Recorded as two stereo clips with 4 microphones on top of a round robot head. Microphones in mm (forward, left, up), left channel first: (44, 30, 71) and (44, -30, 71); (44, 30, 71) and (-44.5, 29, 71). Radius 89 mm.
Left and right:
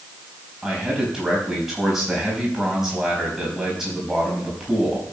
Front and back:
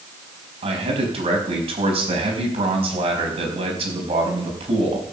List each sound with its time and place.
0.6 s a man speaking: 175° right, 4.5 m